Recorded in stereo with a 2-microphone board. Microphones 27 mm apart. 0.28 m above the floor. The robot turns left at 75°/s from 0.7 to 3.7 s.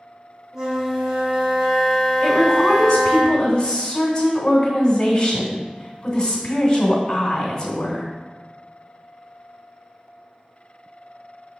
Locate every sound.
0.5 s a flute: 20° right (ahead or behind), 1.4 m; by 3.2 s 20° left (ahead or behind), 1.4 m
2.2 s a woman speaking: 145° left, 1.2 m; by 8.1 s 35° left, 1.2 m